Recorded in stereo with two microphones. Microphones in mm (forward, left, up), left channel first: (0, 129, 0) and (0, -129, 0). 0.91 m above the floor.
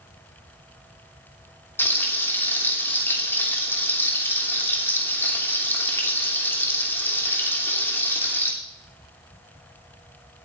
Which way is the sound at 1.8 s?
10° left (ahead or behind).